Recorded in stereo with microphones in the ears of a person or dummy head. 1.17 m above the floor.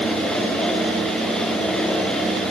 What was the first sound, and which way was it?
Only background noise.